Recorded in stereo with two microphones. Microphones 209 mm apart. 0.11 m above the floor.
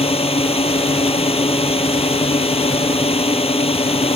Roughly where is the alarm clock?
No alarm clock in this recording.